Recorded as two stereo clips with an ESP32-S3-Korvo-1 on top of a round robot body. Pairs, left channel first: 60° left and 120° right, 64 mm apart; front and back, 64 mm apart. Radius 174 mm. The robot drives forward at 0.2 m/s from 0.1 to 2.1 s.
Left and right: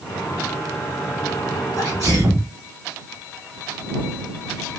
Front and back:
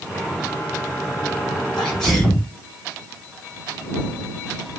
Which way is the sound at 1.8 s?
70° right.